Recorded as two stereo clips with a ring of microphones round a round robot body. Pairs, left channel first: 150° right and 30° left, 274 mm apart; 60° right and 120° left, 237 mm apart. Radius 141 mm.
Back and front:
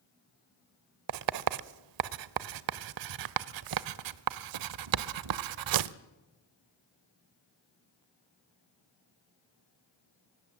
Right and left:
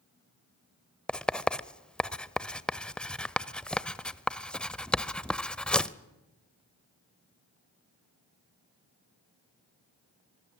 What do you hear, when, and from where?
1.1 s writing: 25° left, 0.7 m